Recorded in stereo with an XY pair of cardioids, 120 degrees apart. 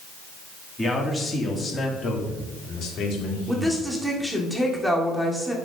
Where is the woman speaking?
Straight ahead, 1.9 m.